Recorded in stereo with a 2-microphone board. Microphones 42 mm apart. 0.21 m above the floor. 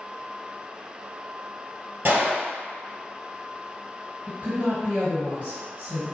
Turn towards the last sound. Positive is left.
turn(degrees=-40)  # may be behind; listen again after turning